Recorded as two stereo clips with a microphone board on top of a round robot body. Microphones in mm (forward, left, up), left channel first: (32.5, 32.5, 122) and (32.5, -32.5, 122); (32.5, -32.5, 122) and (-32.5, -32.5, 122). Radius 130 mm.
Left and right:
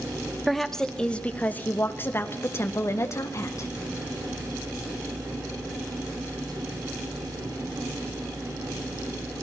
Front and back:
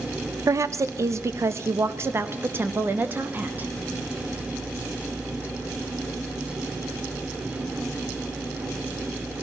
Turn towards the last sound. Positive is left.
turn(degrees=120)